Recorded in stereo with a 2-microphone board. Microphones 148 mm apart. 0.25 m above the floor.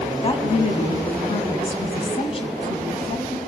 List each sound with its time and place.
0.2 s a woman speaking: 35° left (ahead or behind), 1.8 m